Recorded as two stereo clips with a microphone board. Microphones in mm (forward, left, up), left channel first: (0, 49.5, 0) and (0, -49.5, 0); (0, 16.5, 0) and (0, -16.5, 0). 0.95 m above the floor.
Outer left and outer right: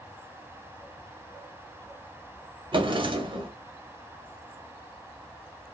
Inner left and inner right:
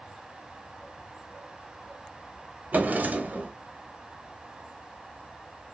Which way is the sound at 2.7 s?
55° right (ahead or behind).